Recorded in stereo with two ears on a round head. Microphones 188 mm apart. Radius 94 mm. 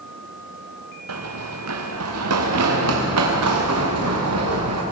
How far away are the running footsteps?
About 4 m.